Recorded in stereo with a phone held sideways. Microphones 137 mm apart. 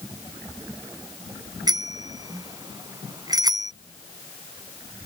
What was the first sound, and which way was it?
A bicycle bell, 30° right (ahead or behind).